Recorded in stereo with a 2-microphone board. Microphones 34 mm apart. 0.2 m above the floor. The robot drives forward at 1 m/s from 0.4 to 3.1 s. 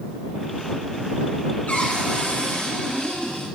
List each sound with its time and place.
1.7 s a cupboard door: 55° left (ahead or behind), 3.5 m; by 3.5 s 40° left (ahead or behind), 4.5 m